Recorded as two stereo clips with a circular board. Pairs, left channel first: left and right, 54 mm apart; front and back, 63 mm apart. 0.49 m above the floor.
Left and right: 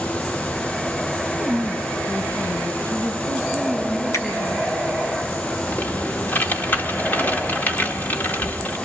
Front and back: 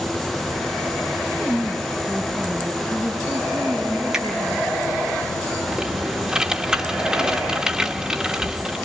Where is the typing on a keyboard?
110° left, 1.3 m.